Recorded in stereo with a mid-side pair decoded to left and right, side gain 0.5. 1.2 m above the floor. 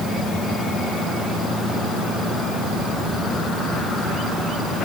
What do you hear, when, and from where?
Only background noise.